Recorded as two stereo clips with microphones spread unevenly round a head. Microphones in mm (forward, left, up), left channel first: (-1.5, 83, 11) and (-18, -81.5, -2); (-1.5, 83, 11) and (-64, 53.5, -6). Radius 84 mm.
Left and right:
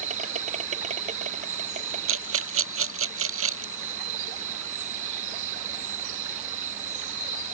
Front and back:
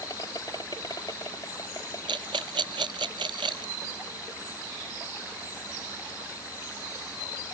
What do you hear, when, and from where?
0.0 s an insect: 45° right
2.1 s a rattle: 90° right